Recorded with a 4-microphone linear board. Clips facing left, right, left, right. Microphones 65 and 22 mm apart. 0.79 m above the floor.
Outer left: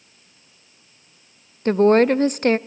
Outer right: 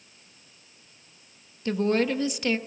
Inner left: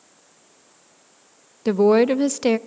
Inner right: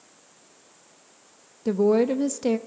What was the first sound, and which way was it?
A woman speaking, 45° left (ahead or behind).